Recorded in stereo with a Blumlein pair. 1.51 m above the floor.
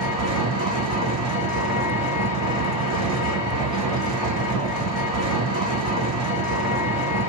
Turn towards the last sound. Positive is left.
turn(degrees=-30)